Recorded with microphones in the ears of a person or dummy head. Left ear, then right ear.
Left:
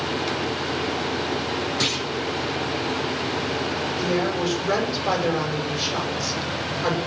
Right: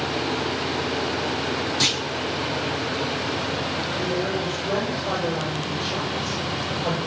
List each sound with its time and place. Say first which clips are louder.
1.8 s a clunk: right 3 dB; centre (ahead or behind), 3.5 m
4.0 s a woman speaking: left 4 dB; 75° left (ahead or behind), 7 m